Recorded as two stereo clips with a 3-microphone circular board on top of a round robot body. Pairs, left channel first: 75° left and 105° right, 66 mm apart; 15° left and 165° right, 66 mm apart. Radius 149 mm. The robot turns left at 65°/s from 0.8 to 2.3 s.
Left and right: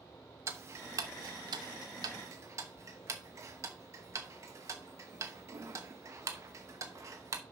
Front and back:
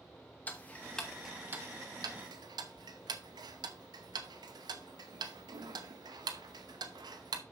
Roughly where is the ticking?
Ahead right.